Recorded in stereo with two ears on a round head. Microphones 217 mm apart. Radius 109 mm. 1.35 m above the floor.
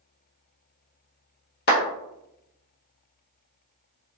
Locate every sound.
1.7 s a clap: 40° left (ahead or behind), 0.8 m